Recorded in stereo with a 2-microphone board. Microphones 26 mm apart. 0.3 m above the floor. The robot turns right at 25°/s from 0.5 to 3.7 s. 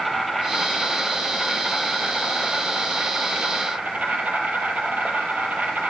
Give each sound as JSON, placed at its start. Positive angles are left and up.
{"t": 0.0, "sound": "an insect", "azimuth_deg": 180, "distance_m": 3.5}